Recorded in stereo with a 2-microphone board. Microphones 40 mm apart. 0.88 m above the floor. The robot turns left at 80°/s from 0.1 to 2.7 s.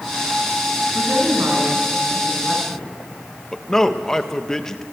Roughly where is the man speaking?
Centre.